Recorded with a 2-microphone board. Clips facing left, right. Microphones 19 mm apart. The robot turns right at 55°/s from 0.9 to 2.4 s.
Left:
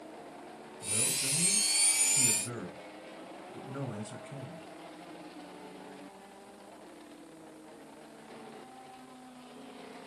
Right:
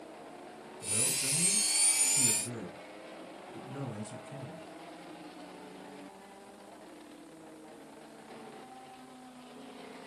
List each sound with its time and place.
0.8 s a man speaking: 25° right, 1.6 m; by 4.7 s 55° left, 1.6 m